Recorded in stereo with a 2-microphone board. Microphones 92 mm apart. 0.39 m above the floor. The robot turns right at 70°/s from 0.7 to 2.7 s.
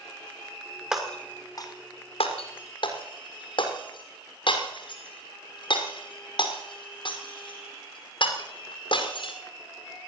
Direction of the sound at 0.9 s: 10° right (ahead or behind).